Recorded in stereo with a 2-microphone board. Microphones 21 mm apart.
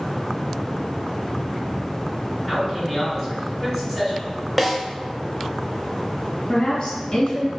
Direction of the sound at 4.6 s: 5° left (ahead or behind).